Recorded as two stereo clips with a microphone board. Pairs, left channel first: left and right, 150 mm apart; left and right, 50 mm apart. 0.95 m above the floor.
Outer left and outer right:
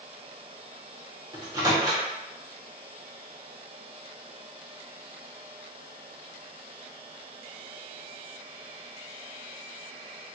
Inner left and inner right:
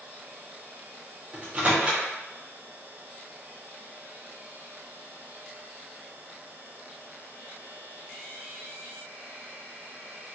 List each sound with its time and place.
1.3 s a microwave: 25° right (ahead or behind), 1.0 m